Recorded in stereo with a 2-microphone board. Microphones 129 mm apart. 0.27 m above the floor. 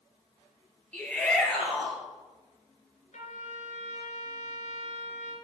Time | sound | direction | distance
0.9 | a shout | 10° left (ahead or behind) | 5 m
3.1 | a trumpet | 70° left (ahead or behind) | 4 m